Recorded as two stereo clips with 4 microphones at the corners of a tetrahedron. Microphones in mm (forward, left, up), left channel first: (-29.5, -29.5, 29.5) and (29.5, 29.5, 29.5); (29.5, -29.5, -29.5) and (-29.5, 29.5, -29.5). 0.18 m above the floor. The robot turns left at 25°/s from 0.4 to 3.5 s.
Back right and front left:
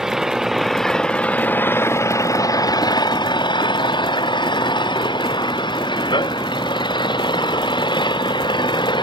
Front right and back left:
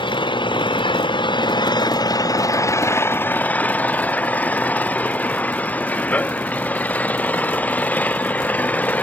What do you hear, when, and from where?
0.0 s an engine running: 40° right; by 9.0 s 115° right